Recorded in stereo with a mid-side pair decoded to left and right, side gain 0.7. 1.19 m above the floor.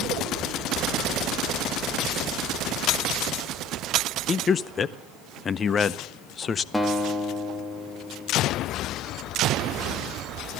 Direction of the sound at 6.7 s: 10° left.